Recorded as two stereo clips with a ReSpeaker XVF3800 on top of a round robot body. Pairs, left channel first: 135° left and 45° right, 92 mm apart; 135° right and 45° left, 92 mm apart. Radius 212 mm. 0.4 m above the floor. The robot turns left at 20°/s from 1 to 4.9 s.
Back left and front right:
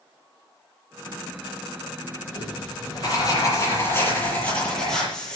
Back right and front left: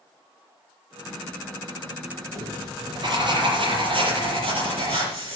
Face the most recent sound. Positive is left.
turn(degrees=50)